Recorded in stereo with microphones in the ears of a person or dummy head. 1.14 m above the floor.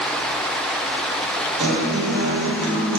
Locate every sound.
1.6 s a guitar: 85° right, 1.3 m